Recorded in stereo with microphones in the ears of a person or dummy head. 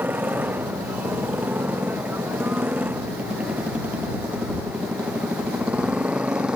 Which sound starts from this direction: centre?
A motorcycle, at 0.0 s.